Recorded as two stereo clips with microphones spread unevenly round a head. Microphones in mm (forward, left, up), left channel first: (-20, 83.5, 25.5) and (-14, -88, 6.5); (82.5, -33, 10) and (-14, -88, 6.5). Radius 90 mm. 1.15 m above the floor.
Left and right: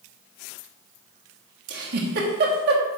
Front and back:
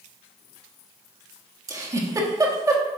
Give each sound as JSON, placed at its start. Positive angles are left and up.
{"t": 1.7, "sound": "a giggle", "azimuth_deg": -95, "distance_m": 1.6}